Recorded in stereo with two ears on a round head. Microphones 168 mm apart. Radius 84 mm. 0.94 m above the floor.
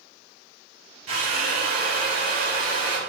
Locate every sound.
1.1 s a drill: 85° right, 3 m